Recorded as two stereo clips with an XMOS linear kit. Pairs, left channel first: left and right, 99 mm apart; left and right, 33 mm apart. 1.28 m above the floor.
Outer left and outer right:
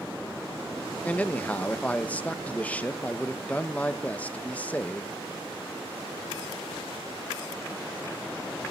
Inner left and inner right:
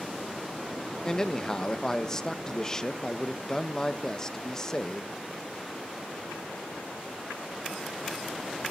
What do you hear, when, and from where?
1.0 s a man speaking: 15° left (ahead or behind), 1.2 m